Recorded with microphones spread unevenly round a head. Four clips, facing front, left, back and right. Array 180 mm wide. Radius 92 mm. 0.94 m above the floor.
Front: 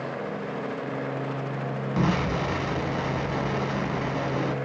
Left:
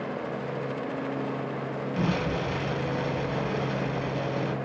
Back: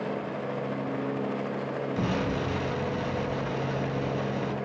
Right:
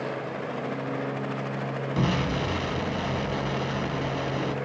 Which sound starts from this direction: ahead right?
An explosion, at 2.0 s.